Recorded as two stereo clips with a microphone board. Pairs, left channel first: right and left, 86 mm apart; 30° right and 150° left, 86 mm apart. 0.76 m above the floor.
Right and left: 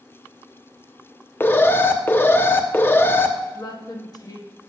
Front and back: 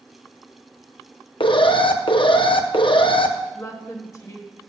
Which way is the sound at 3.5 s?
70° right.